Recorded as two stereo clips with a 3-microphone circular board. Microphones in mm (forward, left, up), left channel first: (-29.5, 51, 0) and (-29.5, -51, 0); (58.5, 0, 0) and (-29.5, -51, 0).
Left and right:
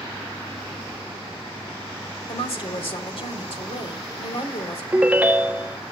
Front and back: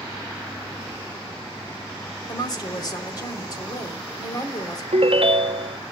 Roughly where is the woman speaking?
Left.